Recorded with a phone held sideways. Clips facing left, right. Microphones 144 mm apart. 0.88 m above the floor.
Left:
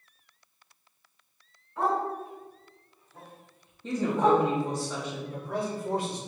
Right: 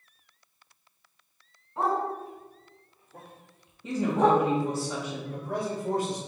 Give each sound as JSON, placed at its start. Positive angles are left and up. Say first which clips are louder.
{"t": 1.8, "sound": "a dog barking", "louder": "even", "side_deg": -30, "distance_m": 1.8}
{"t": 3.8, "sound": "a woman speaking", "louder": "right 1 dB", "side_deg": -10, "distance_m": 1.1}
{"t": 5.3, "sound": "a man speaking", "louder": "right 1 dB", "side_deg": -45, "distance_m": 1.5}